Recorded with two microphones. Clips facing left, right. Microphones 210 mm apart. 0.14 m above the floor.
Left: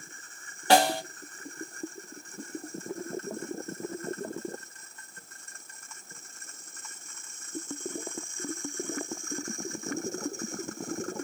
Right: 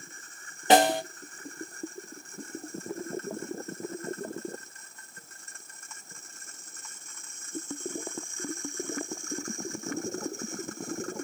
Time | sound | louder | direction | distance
0.7 | a snare drum | right 2 dB | 20° right (ahead or behind) | 0.5 m